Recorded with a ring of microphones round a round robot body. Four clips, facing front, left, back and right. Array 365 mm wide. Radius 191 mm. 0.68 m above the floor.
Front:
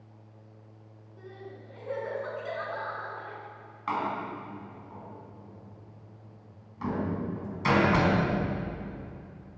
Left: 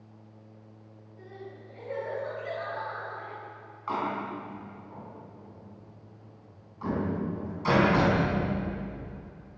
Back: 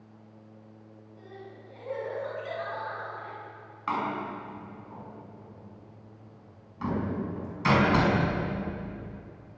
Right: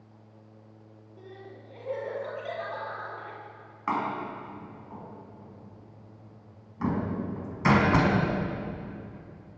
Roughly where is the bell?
I don't hear a bell.